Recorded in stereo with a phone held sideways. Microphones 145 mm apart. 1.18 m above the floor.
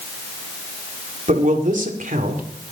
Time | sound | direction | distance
1.3 | a man speaking | 60° right (ahead or behind) | 2.5 m